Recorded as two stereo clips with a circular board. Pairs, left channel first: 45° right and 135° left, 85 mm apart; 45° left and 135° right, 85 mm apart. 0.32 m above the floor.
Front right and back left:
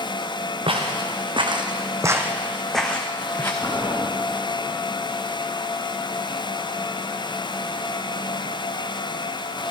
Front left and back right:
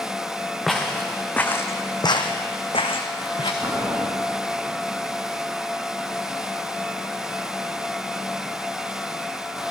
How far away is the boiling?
About 2.5 m.